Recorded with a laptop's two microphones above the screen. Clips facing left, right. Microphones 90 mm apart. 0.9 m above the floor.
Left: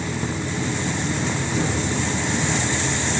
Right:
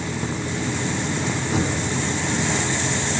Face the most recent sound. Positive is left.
turn(degrees=-85)